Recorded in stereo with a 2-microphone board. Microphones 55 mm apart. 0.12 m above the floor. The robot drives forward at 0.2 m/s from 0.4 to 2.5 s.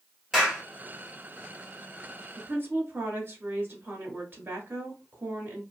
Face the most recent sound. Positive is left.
turn(degrees=-35)  # may be behind; listen again after turning